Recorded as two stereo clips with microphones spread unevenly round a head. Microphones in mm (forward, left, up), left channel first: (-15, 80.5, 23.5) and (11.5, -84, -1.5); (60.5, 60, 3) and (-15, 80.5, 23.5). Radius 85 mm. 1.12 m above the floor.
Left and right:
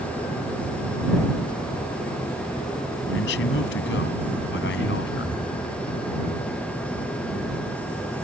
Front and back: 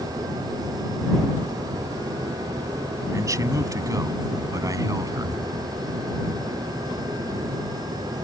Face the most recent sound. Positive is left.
turn(degrees=125)